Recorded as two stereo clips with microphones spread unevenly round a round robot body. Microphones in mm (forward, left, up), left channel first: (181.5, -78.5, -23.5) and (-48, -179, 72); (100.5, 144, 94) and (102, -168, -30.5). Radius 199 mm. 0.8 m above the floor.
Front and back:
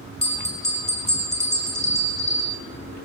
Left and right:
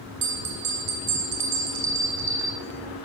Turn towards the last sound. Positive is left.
turn(degrees=-60)